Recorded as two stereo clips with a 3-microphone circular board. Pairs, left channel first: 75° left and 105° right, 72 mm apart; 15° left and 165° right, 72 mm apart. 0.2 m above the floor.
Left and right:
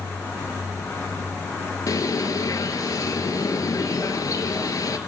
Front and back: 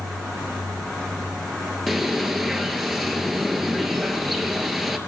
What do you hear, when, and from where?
1.9 s a bird: 105° left, 0.9 m